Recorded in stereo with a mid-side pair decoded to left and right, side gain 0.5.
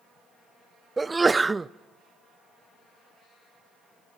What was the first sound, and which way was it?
A sneeze, 20° right.